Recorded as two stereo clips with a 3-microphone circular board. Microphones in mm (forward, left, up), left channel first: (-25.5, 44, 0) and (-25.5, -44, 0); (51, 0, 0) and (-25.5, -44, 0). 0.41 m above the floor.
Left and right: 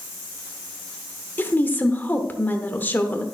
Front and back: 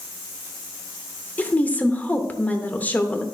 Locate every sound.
1.4 s a woman speaking: 65° left, 0.8 m